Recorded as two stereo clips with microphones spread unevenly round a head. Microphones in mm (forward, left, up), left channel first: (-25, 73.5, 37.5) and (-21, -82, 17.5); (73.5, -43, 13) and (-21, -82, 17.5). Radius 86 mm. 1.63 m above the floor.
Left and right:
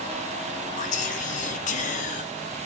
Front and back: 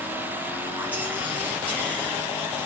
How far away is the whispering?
About 1.0 m.